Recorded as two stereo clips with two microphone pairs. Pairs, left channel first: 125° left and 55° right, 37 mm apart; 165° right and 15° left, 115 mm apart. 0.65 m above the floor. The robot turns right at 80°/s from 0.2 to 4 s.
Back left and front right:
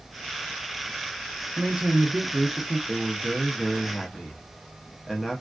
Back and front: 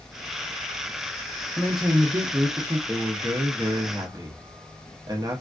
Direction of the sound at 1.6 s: 85° right.